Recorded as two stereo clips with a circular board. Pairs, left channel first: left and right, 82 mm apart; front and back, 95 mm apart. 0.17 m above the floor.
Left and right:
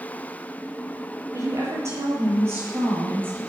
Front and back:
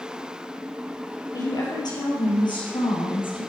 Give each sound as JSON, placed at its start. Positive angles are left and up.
{"t": 1.3, "sound": "a woman speaking", "azimuth_deg": -45, "distance_m": 4.0}